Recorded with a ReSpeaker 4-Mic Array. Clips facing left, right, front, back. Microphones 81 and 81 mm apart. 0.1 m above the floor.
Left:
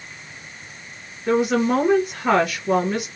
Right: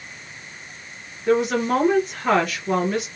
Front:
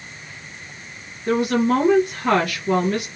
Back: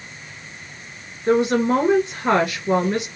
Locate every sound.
1.3 s a woman speaking: 170° left, 1.3 m